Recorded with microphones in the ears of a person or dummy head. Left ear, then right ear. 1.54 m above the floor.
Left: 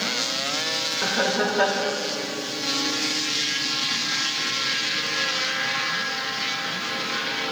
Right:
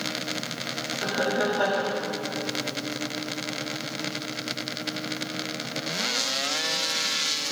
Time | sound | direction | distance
1.0 | laughter | 55° left (ahead or behind) | 1.4 m